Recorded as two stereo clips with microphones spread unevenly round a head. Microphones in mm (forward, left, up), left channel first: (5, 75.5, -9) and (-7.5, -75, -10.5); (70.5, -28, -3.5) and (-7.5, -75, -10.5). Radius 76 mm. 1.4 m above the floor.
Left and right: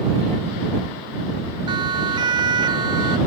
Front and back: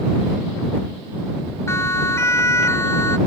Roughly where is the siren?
Ahead right.